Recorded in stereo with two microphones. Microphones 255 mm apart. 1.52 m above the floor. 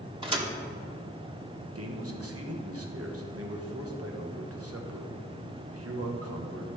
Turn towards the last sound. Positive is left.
turn(degrees=-65)  # may be behind; listen again after turning